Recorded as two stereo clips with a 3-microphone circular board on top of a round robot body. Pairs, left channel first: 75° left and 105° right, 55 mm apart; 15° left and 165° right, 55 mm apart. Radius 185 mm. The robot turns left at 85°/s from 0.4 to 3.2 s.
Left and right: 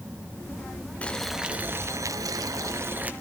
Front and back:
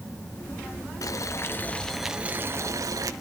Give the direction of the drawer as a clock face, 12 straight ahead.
I don't hear a drawer.